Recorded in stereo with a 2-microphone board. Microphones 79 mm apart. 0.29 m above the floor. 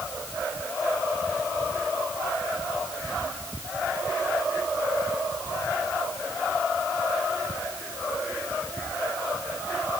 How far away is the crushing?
No crushing in this recording.